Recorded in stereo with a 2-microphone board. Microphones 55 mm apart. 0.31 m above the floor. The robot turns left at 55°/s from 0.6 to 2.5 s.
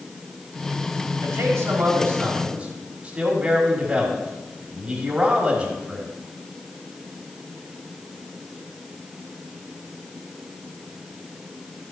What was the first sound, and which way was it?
A man speaking, 80° right.